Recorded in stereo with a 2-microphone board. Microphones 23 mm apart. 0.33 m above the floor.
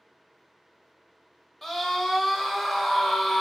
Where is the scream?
5° left (ahead or behind), 1.0 m.